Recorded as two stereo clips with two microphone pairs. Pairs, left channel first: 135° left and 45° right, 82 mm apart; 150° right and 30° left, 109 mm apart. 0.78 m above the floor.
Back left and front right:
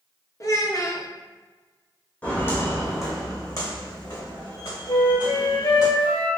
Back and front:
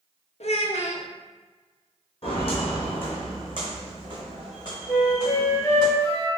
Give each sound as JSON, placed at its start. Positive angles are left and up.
{"t": 0.4, "sound": "a child speaking", "azimuth_deg": -170, "distance_m": 0.7}
{"t": 2.2, "sound": "footsteps", "azimuth_deg": -150, "distance_m": 1.3}
{"t": 4.9, "sound": "a flute", "azimuth_deg": 145, "distance_m": 0.9}